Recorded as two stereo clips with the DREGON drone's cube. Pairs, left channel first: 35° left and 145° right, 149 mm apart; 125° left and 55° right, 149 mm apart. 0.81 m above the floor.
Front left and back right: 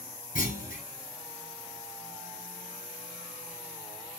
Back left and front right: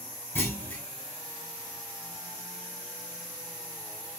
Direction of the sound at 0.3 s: 45° left.